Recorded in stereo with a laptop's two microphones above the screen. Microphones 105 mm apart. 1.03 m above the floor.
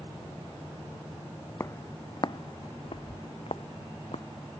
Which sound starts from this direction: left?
Footsteps, at 1.6 s.